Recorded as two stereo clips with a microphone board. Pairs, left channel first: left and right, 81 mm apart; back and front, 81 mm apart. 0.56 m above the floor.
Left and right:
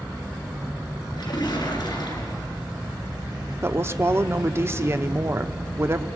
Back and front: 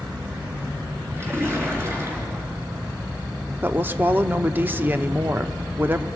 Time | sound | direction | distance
1.2 | a splash | 60° left | 3.5 m
3.6 | a woman speaking | 55° right | 0.8 m